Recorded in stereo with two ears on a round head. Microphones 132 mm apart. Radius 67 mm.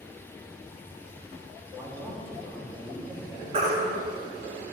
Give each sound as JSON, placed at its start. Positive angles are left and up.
{"t": 1.7, "sound": "a man speaking", "side_deg": 5, "distance_m": 1.9}
{"t": 3.5, "sound": "a baby crying", "side_deg": -40, "distance_m": 1.3}